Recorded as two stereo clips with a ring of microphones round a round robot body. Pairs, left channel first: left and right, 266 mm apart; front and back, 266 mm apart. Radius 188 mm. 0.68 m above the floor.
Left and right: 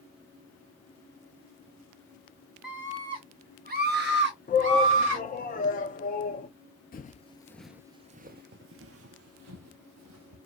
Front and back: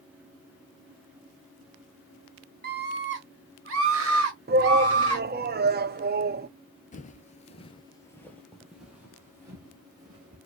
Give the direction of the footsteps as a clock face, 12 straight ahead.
10 o'clock.